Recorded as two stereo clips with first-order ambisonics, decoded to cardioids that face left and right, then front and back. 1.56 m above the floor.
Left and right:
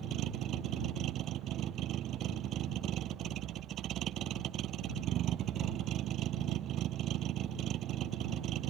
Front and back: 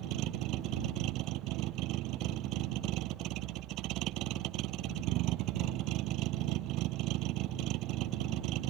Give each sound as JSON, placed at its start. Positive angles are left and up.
{"t": 0.0, "sound": "a vehicle", "azimuth_deg": -140}